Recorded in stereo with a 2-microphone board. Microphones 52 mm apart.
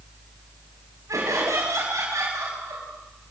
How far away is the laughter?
About 7 m.